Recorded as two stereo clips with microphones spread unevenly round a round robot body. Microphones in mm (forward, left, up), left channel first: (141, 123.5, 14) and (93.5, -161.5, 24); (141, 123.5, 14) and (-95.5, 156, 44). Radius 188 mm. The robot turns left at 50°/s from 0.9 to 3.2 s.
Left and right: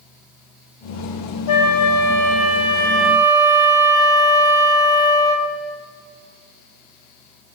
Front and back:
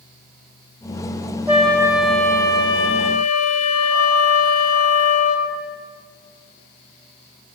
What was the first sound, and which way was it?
A flute, 90° left.